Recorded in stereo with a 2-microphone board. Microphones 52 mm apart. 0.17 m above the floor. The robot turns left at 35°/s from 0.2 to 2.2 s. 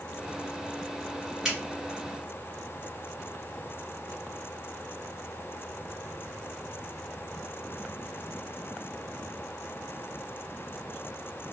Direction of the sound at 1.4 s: 5° right (ahead or behind).